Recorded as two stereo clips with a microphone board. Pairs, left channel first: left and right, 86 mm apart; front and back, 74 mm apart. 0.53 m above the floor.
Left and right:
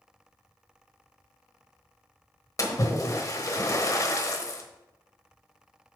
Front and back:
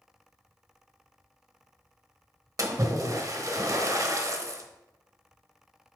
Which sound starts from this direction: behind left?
A splash, at 2.6 s.